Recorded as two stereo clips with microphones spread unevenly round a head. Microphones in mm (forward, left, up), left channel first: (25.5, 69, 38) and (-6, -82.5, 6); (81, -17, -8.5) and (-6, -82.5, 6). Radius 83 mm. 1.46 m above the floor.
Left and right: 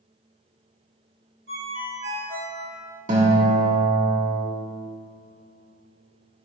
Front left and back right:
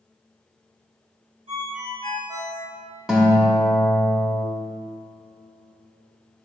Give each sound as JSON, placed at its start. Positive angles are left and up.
{"t": 1.5, "sound": "a ringtone", "azimuth_deg": -125, "distance_m": 2.5}
{"t": 3.1, "sound": "a guitar", "azimuth_deg": -60, "distance_m": 1.9}